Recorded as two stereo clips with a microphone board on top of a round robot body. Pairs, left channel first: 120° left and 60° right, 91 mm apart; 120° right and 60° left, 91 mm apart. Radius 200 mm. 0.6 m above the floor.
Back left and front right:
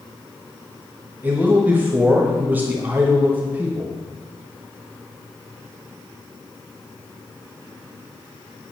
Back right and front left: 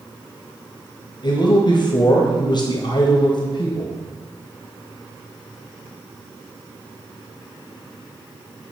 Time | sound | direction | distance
1.2 | a man speaking | 125° right | 0.9 m